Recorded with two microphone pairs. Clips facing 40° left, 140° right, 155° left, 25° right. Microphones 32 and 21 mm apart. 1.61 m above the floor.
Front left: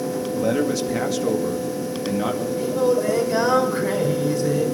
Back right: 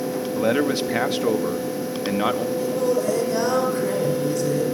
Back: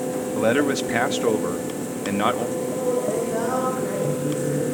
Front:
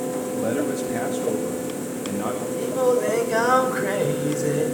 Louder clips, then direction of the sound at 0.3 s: Back right 1 dB, back 6 dB; 165° left.